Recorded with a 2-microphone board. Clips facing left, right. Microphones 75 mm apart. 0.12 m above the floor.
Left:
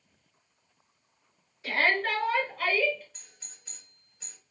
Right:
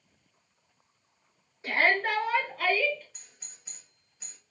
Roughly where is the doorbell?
Centre.